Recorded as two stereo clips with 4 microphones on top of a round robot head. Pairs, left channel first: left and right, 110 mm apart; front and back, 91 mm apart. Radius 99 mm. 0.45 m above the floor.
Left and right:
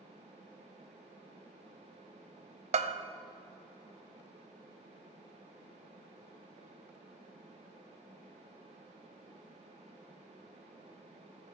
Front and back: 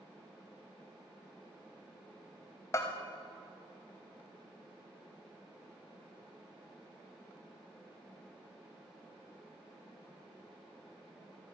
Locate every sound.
2.7 s a bell: 65° right, 0.8 m